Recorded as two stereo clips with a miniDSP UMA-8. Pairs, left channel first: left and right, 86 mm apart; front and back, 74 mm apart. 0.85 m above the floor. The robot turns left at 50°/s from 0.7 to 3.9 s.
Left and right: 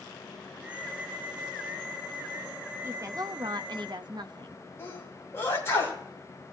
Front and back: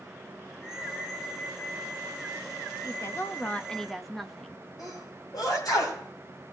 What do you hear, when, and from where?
2.8 s a woman speaking: 35° right, 0.8 m; by 4.6 s 90° right, 0.8 m
4.8 s a sneeze: 30° left, 4.5 m